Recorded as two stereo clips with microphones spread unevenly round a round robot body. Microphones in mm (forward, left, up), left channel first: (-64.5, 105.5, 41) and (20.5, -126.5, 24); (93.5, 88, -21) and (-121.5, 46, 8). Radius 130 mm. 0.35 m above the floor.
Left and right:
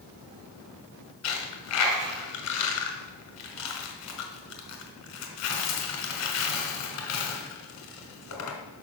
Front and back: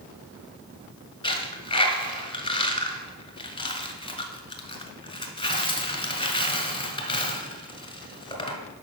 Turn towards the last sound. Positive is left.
turn(degrees=80)